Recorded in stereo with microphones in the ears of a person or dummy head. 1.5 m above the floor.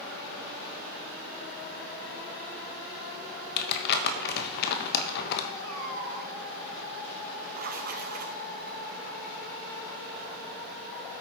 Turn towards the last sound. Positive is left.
turn(degrees=-50)  # may be behind; listen again after turning